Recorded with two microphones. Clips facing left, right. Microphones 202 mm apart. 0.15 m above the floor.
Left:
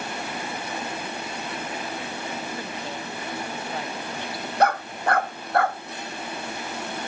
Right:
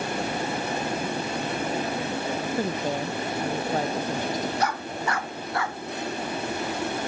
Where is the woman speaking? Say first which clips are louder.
Right 7 dB; 45° right (ahead or behind).